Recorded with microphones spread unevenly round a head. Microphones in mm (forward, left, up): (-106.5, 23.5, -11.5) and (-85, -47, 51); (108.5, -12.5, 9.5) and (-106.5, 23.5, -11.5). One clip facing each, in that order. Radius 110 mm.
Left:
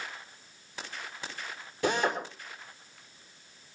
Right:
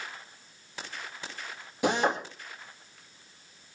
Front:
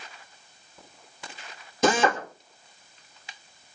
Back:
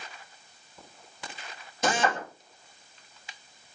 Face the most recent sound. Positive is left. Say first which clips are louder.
# right 2 dB, front 5 dB
turn(degrees=15)